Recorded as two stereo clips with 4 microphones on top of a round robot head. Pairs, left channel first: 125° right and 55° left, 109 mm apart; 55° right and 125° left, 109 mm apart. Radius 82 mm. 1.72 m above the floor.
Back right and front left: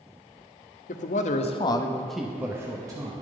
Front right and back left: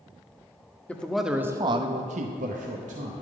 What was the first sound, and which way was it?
A man speaking, 135° right.